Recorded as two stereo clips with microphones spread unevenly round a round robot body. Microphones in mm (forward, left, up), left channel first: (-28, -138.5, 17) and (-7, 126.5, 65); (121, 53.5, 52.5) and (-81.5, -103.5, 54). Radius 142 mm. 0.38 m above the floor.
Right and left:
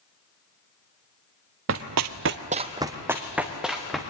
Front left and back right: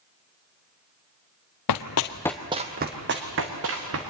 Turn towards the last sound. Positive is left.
turn(degrees=175)